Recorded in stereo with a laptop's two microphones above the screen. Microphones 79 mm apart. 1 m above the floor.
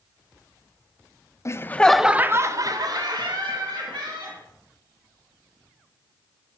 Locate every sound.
1.4 s laughter: 40° left (ahead or behind), 0.6 m; by 4.4 s 75° right (ahead or behind), 1.9 m